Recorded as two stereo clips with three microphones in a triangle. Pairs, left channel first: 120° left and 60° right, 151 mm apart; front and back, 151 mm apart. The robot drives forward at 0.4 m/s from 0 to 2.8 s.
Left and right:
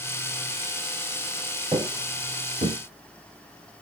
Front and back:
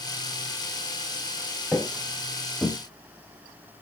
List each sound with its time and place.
1.7 s footsteps: 95° right, 0.6 m; by 2.8 s 90° right, 1.2 m